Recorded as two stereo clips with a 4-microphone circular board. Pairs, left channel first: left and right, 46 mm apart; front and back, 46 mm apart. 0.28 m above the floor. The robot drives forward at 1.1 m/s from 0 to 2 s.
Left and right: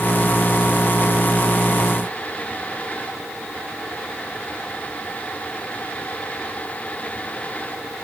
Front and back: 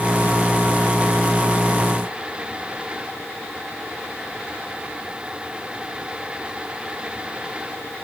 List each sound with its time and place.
Only background noise.